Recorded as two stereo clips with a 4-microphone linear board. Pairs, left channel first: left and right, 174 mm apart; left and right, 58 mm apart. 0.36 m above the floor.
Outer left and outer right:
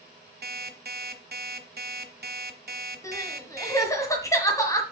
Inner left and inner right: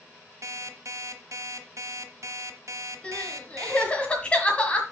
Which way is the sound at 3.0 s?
20° left (ahead or behind).